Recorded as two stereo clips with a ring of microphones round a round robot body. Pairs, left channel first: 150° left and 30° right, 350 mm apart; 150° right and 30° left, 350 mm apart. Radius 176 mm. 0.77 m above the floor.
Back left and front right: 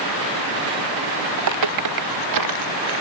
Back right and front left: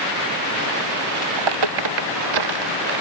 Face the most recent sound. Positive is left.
turn(degrees=5)